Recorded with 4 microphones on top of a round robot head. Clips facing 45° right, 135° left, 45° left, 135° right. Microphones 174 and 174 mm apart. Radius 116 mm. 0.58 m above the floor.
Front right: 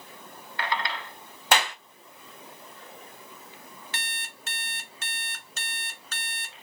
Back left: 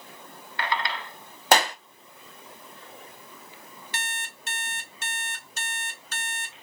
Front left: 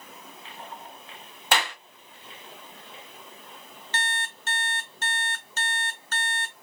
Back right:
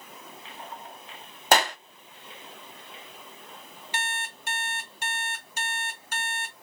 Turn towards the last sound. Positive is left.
turn(degrees=-55)